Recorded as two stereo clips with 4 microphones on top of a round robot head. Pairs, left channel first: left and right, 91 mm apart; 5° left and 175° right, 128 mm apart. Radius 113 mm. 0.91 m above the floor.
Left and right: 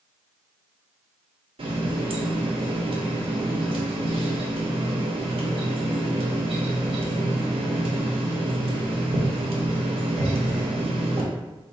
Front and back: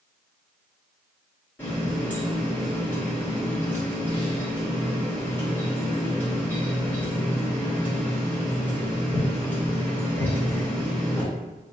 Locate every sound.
1.6 s a running tap: 75° right, 0.7 m